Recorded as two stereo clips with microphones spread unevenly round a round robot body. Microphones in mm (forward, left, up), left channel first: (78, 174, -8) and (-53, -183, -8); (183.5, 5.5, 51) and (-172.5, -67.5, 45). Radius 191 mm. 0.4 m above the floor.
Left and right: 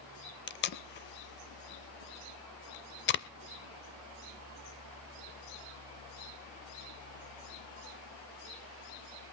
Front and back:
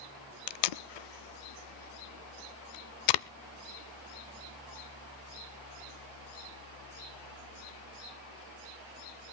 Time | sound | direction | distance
0.5 | tape being pulled | 10° left | 0.6 m